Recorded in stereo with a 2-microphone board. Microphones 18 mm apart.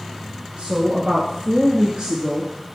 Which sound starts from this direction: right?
A woman speaking, at 0.6 s.